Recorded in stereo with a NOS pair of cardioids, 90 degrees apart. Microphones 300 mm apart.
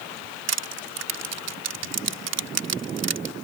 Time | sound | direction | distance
0.5 | crushing | 60° right | ?